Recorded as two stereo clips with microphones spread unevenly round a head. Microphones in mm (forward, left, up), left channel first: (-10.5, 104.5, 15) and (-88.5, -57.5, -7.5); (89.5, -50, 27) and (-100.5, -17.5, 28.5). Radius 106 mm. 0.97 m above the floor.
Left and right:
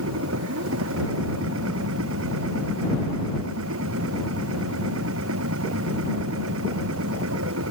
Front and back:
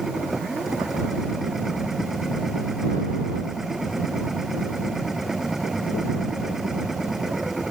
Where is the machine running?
100° right.